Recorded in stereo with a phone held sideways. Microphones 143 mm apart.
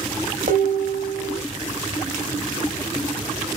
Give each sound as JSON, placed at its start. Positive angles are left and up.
{"t": 0.5, "sound": "dishes clattering", "side_deg": -75, "distance_m": 1.1}